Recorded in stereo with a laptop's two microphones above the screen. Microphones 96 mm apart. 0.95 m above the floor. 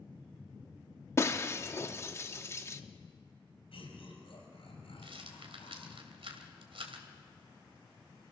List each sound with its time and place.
1.2 s breaking glass: 30° left (ahead or behind), 1.1 m
3.7 s laughter: 85° left, 6 m
5.0 s a rattle: 80° right, 2.5 m